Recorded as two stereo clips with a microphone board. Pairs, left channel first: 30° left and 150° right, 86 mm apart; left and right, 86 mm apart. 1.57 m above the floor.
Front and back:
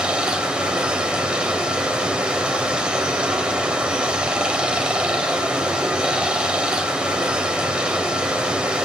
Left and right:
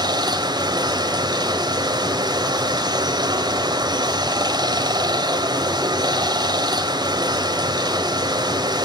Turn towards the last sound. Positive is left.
turn(degrees=-75)